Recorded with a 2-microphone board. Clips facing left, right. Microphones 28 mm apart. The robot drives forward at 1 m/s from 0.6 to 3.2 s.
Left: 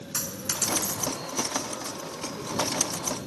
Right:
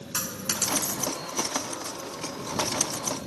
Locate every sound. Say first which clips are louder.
0.1 s a dropped coin: right 1 dB; 40° right (ahead or behind); by 1.2 s 30° right (ahead or behind)